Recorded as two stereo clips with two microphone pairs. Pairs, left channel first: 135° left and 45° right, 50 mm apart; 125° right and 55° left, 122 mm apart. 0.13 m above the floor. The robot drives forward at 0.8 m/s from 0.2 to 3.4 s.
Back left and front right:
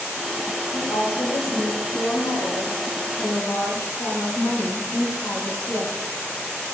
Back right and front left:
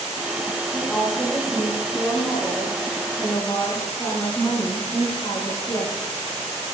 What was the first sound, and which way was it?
A woman speaking, 145° left.